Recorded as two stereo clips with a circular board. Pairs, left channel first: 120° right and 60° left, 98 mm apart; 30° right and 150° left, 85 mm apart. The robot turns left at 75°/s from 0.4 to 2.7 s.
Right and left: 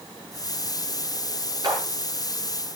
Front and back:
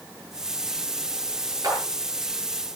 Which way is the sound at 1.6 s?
105° left.